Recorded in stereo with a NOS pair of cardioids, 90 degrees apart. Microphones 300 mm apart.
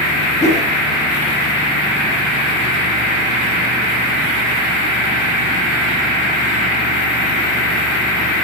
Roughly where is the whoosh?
Ahead left.